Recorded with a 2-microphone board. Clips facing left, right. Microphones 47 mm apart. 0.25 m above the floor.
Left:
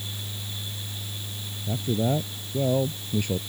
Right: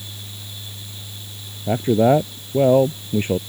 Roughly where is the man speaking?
Right.